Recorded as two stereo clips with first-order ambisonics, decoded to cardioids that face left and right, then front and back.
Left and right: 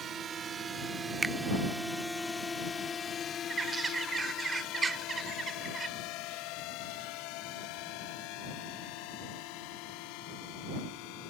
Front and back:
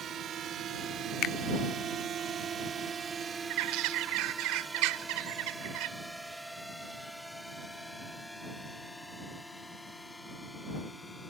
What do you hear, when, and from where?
0.0 s a drone: 135° right; by 11.3 s 80° left
1.2 s a finger snap: 20° right
3.5 s a bird: 165° right